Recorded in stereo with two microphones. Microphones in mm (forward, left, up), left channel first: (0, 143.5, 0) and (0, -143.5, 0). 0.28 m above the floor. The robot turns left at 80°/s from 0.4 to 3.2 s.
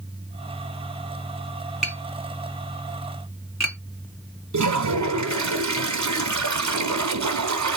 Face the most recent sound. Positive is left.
turn(degrees=-80)